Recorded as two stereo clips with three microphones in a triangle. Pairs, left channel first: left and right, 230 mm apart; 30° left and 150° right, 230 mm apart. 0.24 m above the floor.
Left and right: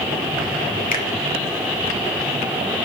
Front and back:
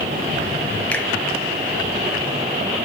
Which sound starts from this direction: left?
A finger snap, at 0.9 s.